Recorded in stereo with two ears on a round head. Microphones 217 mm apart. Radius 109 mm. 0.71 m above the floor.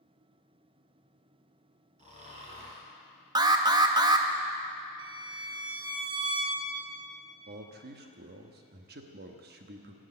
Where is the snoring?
30° right (ahead or behind), 3 m.